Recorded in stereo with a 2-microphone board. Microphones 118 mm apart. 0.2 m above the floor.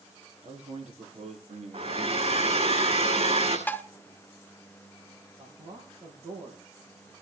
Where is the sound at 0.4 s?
70° right (ahead or behind), 5 m.